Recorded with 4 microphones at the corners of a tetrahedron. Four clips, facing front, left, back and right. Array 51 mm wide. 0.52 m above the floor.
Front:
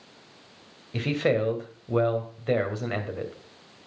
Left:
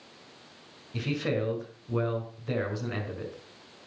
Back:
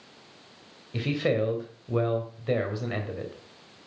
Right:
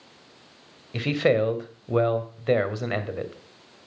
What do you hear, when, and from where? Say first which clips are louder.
0.9 s a man speaking: right 8 dB, front 2 dB; 75° right, 2.5 m